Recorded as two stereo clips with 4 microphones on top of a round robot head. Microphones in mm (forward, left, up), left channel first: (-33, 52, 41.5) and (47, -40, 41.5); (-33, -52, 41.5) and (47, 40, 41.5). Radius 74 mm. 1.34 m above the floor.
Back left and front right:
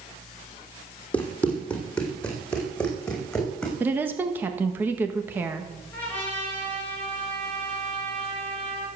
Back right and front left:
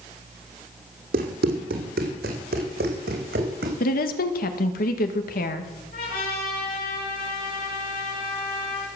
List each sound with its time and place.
1.1 s running footsteps: 55° left, 3.5 m; by 3.7 s 45° left, 5 m
3.8 s a woman speaking: 125° right, 1.7 m
5.9 s a trumpet: 150° right, 7 m